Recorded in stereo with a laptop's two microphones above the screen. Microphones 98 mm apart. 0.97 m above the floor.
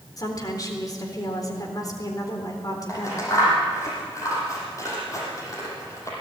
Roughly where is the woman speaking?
Left.